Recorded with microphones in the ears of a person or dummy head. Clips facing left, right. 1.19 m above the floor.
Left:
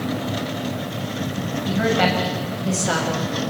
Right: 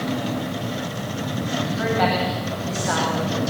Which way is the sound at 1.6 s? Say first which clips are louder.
Left 3 dB; 40° left (ahead or behind).